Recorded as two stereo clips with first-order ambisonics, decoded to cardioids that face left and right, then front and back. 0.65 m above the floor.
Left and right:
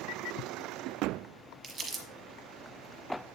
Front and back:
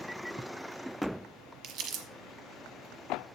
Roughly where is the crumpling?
Behind right.